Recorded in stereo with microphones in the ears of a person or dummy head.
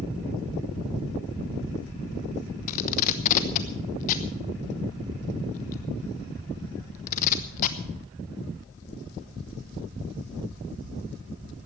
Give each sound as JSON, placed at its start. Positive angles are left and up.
{"t": 2.7, "sound": "tape being pulled", "side_deg": 45, "distance_m": 1.1}